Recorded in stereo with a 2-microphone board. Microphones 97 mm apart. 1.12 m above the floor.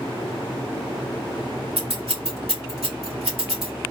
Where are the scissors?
85° right, 2.5 m.